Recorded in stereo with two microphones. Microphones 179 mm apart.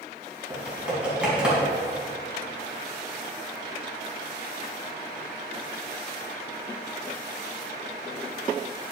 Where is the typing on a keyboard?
5° right (ahead or behind), 4 m.